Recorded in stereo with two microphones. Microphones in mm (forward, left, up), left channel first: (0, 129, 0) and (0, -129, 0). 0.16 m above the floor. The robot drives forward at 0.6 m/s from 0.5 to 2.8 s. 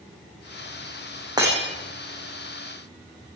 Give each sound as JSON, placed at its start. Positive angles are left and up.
{"t": 1.4, "sound": "breaking glass", "side_deg": -15, "distance_m": 9.0}